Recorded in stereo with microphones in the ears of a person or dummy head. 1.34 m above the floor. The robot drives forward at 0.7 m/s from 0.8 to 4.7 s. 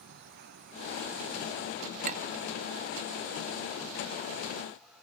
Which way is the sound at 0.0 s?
65° right (ahead or behind).